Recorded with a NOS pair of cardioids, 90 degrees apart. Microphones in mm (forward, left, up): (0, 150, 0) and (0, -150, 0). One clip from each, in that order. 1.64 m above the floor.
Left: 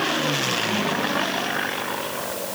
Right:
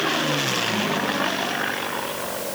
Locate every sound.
Only background noise.